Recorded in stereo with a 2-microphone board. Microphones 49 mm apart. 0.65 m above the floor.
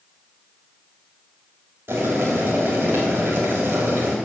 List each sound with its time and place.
1.9 s boiling: 60° right (ahead or behind), 3 m